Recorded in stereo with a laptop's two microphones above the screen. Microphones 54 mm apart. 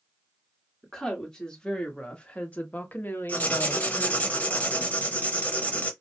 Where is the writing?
30° left (ahead or behind), 0.8 m.